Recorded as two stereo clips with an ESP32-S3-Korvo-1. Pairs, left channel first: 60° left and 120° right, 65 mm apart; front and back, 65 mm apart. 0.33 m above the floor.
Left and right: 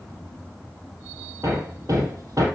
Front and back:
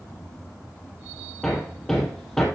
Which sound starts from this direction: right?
Hammering, at 1.4 s.